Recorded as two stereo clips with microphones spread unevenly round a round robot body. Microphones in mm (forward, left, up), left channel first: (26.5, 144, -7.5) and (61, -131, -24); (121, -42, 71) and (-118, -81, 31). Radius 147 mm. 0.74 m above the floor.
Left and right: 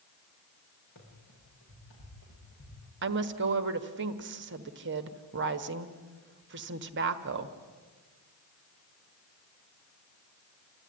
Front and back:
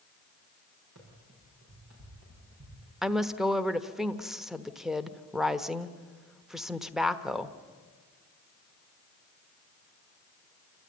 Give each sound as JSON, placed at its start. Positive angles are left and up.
{"t": 0.9, "sound": "running footsteps", "azimuth_deg": 150, "distance_m": 9.0}
{"t": 3.0, "sound": "a woman speaking", "azimuth_deg": -95, "distance_m": 1.1}